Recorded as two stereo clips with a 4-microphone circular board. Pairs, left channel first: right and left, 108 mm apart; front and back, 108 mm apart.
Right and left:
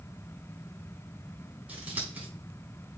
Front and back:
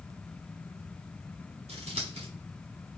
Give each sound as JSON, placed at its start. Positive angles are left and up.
{"t": 1.7, "sound": "scissors", "azimuth_deg": 165, "distance_m": 3.5}